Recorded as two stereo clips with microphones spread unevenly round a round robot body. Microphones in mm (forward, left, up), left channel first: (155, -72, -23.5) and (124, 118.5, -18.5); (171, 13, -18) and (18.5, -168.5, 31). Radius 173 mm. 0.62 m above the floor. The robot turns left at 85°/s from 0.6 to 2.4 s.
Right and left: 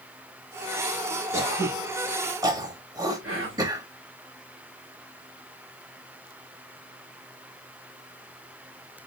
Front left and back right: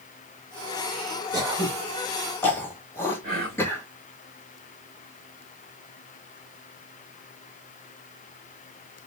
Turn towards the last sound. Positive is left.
turn(degrees=160)